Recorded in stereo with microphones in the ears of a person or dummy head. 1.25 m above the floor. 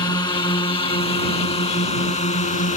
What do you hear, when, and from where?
0.0 s a drone: 25° left (ahead or behind); by 2.8 s 45° left (ahead or behind)